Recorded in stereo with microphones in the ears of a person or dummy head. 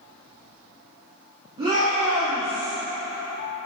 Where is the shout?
30° right (ahead or behind), 1.5 m; by 2.7 s 60° right (ahead or behind), 2.5 m.